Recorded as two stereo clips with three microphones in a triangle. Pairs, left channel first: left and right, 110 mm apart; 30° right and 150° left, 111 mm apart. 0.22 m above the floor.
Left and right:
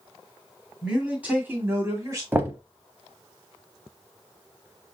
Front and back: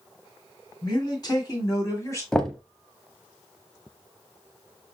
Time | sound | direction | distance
0.8 | a man speaking | 10° right | 2 m
2.3 | knocking | 100° right | 0.7 m